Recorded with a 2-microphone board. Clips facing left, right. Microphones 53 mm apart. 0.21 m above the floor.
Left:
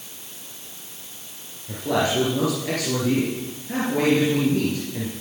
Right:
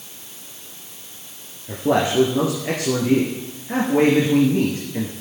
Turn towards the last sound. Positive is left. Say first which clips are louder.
# right 3 dB
turn(degrees=-25)  # may be behind; listen again after turning